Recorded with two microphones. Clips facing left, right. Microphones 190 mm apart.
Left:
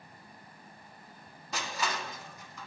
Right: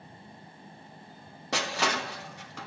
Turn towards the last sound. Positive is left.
turn(degrees=-70)  # may be behind; listen again after turning